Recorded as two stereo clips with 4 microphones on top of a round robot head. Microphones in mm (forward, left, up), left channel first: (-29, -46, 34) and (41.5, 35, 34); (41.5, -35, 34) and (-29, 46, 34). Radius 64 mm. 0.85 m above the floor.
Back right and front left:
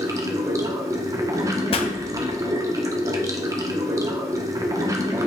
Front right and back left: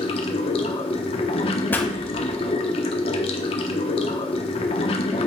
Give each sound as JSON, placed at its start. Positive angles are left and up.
{"t": 0.0, "sound": "running water", "azimuth_deg": -15, "distance_m": 1.1}
{"t": 1.7, "sound": "a pop", "azimuth_deg": -120, "distance_m": 1.2}